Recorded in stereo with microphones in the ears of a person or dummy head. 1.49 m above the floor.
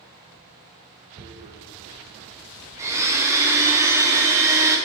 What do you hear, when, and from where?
1.2 s tearing paper: 30° right (ahead or behind), 0.8 m
2.8 s a blender: 15° right (ahead or behind), 0.8 m